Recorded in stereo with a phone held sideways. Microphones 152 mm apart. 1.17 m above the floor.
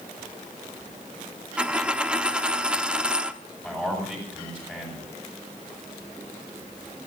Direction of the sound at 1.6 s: 5° right (ahead or behind).